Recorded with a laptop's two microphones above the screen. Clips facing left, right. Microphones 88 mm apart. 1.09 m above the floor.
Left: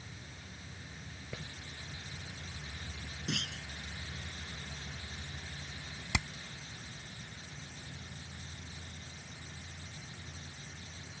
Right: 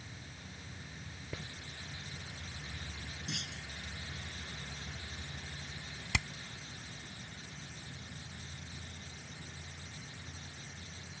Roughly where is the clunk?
Left.